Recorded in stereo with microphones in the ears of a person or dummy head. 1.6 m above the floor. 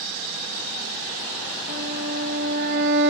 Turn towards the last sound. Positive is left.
turn(degrees=-55)  # may be behind; listen again after turning